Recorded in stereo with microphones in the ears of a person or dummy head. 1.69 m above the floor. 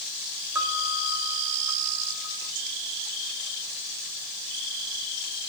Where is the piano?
10° right (ahead or behind), 5 m.